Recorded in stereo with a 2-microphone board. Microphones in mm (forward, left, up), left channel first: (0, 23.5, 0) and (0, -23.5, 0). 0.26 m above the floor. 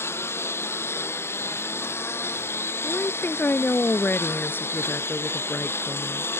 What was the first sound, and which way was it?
A lawn mower, 60° left (ahead or behind).